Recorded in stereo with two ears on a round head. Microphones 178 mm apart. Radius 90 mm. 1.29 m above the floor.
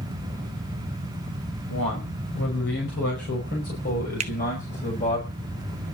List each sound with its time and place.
1.7 s a man speaking: 65° left (ahead or behind), 6 m; by 5.2 s 35° left (ahead or behind), 5 m
4.2 s a finger snap: 35° right (ahead or behind), 1.0 m